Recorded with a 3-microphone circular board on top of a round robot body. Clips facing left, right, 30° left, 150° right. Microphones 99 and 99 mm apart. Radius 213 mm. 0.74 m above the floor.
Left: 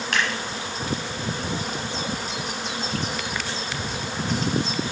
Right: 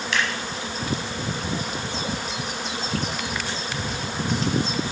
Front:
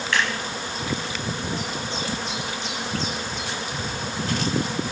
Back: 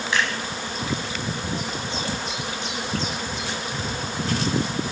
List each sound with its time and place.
0.1 s scissors: 135° left, 0.9 m